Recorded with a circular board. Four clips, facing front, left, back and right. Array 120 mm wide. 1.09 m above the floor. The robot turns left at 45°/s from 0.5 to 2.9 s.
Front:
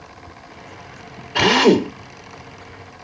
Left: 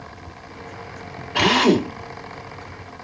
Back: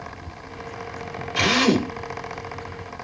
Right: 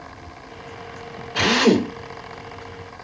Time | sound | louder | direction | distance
1.4 | a drill | even, front 6 dB | 20° left | 3.5 m